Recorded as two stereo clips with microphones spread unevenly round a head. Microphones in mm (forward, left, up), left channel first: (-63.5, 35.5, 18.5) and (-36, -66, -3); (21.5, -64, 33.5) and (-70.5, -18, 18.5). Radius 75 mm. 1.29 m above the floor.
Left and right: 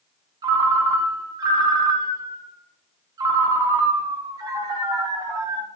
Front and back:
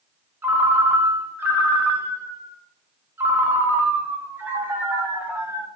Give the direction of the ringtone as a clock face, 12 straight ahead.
4 o'clock.